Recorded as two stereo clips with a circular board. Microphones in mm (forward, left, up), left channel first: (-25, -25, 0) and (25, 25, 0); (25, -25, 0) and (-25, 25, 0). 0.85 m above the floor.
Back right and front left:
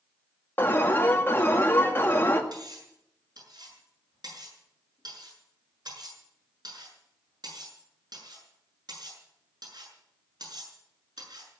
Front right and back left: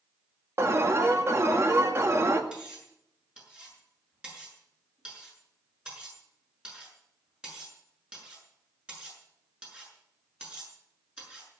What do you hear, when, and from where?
0.6 s an alarm: 170° left, 1.9 m
2.5 s cutlery clinking: 60° left, 7 m